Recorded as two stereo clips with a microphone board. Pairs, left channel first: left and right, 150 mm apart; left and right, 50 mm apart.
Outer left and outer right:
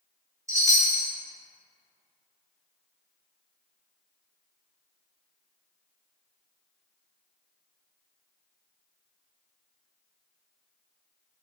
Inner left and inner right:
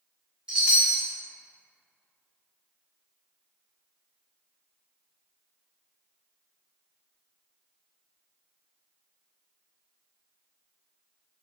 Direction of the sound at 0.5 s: 20° right (ahead or behind).